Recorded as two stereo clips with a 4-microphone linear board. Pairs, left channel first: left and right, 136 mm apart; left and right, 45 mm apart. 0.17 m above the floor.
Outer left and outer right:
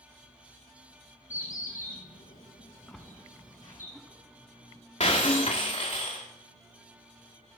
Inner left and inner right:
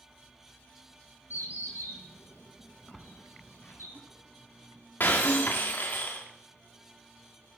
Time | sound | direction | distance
1.3 | a bird | 80° left | 2.5 m
2.9 | a splash | centre (ahead or behind) | 0.7 m
5.0 | breaking glass | 55° left (ahead or behind) | 1.8 m